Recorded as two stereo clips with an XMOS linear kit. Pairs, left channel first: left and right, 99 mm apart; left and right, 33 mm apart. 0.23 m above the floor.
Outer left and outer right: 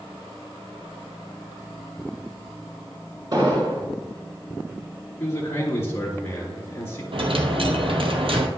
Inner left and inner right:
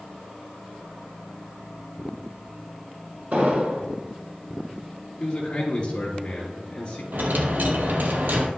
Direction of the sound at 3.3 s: 50° right (ahead or behind).